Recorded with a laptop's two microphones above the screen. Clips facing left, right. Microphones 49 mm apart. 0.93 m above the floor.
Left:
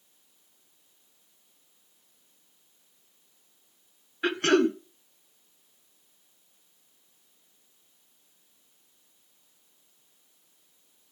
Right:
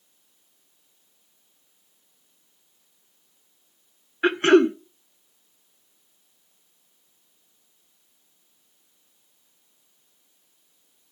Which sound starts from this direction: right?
Throat clearing, at 4.2 s.